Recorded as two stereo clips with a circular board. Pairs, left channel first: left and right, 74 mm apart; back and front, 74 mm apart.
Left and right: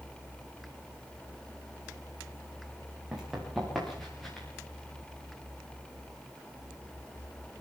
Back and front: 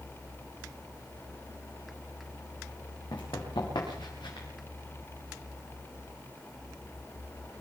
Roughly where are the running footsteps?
Behind.